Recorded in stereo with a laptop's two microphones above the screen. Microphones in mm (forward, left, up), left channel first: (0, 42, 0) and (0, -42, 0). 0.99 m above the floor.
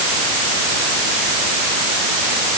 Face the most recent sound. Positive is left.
No sound to turn to.